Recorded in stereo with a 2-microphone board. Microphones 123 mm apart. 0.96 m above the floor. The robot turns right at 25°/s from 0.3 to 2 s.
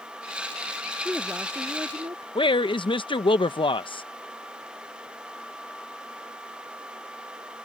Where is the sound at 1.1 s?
10° right (ahead or behind); by 2.2 s 35° right (ahead or behind).